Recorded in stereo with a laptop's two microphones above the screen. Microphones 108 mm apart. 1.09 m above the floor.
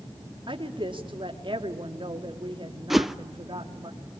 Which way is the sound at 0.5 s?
50° right (ahead or behind).